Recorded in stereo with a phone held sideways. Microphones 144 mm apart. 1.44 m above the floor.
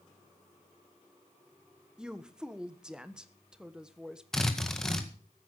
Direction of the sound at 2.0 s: 5° right (ahead or behind).